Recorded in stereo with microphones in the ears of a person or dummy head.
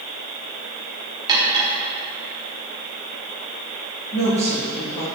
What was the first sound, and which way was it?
Cutlery clinking, 20° right (ahead or behind).